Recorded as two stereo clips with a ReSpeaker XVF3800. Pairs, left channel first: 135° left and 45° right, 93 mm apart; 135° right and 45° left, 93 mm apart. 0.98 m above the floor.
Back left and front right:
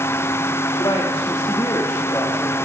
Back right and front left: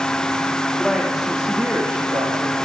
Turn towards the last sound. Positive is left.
turn(degrees=65)